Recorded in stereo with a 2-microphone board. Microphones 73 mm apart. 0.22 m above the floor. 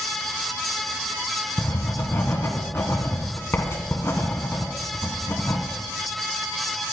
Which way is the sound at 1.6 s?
40° left (ahead or behind).